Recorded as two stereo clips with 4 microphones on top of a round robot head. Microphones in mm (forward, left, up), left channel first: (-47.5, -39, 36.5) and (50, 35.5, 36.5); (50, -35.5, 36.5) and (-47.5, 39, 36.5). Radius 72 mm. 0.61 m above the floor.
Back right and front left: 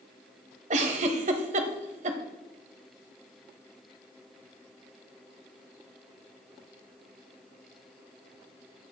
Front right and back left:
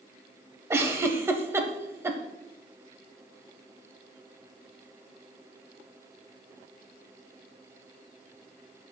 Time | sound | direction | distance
0.7 | a giggle | 70° left | 1.0 m